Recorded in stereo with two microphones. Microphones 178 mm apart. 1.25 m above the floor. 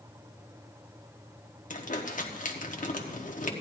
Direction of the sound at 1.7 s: 50° left (ahead or behind).